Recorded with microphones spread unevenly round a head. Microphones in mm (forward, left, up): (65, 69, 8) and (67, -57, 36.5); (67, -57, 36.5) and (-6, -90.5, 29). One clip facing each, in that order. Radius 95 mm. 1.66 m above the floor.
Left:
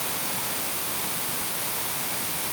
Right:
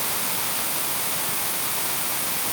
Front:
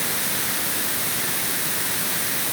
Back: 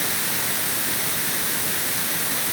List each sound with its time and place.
Only background noise.